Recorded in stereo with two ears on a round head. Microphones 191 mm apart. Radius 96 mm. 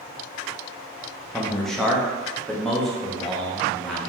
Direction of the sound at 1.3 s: Centre (ahead or behind).